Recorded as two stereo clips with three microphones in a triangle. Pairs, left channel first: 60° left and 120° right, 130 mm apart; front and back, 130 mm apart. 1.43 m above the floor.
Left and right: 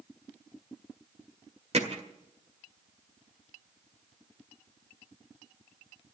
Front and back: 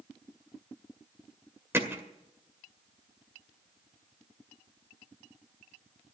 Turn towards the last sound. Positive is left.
turn(degrees=-110)